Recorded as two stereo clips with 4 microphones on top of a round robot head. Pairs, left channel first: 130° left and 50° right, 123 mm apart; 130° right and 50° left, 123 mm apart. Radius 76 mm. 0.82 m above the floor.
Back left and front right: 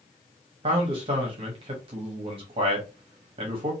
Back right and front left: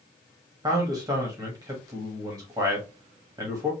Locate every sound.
0.6 s a man speaking: 10° right, 1.0 m